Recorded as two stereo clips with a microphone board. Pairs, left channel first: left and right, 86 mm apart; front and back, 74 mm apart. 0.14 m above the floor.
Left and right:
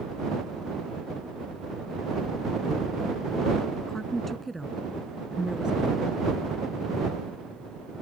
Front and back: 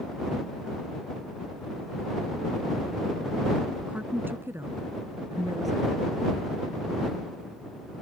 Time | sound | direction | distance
3.9 | a woman speaking | 155° left | ?